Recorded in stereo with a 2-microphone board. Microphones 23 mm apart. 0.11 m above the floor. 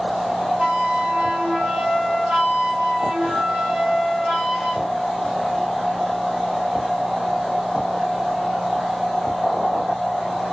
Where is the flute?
55° right (ahead or behind), 1.5 m.